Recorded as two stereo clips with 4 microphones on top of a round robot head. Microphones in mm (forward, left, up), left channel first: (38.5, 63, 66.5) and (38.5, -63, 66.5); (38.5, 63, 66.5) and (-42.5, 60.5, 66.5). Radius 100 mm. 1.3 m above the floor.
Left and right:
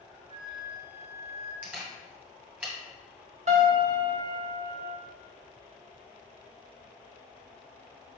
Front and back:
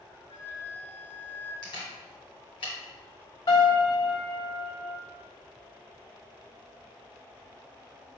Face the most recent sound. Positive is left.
turn(degrees=-55)